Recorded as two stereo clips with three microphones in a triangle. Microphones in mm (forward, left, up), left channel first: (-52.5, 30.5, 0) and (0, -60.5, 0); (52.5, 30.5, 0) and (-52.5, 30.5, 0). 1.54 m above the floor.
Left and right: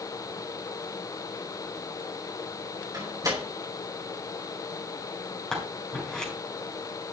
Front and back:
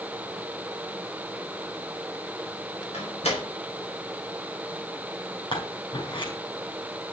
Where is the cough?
I don't hear a cough.